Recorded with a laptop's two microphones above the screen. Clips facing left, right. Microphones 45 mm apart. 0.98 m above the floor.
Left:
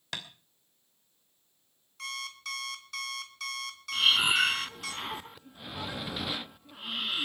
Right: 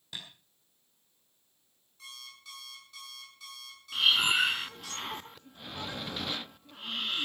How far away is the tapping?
About 2.5 m.